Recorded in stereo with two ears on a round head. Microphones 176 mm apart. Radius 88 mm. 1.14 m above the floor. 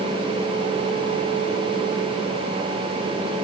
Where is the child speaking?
No child speaking in this recording.